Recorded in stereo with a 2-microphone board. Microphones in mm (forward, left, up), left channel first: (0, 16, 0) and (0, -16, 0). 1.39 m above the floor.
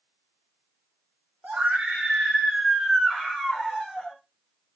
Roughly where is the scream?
Right.